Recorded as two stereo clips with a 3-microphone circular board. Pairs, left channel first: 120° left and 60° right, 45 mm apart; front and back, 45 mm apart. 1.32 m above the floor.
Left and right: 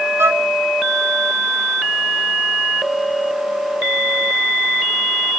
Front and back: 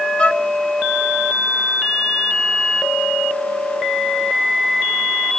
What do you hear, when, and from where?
0.2 s a violin: 65° right